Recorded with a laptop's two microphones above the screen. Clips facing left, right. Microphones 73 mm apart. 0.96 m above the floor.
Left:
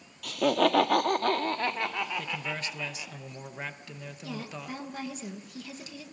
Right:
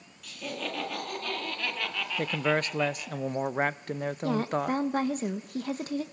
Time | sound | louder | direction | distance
0.2 | laughter | left 12 dB | 75° left (ahead or behind) | 1.7 m
2.2 | a man speaking | right 8 dB | 50° right (ahead or behind) | 0.5 m
4.2 | a woman speaking | right 11 dB | 50° right (ahead or behind) | 1.0 m